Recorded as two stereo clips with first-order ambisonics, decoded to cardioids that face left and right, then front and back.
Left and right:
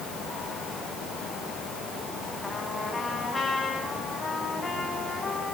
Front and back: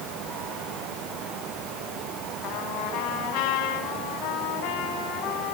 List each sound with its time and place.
2.4 s a trumpet: 15° left, 4 m